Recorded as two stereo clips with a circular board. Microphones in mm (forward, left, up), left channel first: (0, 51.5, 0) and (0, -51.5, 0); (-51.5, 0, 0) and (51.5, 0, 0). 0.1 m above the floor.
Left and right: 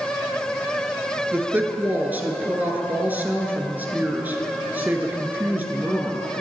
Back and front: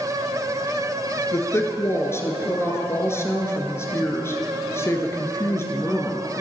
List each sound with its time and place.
1.3 s a woman speaking: 145° right, 1.2 m